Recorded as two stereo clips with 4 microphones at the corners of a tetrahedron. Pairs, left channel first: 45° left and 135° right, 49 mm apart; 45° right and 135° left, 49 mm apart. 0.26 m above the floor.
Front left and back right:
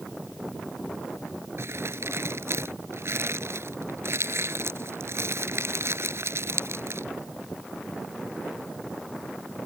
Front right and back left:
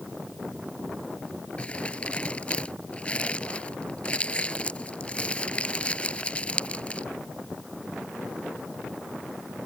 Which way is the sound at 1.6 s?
110° right.